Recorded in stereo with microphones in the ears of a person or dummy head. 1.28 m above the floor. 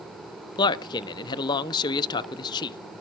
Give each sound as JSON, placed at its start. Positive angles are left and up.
{"t": 0.6, "sound": "a man speaking", "side_deg": 25, "distance_m": 0.6}